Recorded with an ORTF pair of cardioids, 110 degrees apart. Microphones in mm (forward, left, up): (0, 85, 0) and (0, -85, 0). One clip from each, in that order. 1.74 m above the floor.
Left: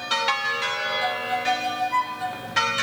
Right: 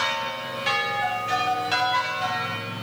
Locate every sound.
1.0 s a violin: 15° left, 2.5 m